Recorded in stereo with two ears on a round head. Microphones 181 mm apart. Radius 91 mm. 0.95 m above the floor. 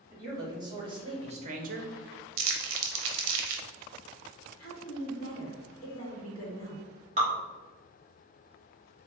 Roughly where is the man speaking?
Centre.